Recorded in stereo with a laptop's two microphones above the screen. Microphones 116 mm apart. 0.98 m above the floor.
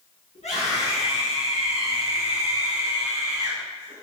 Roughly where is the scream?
Left.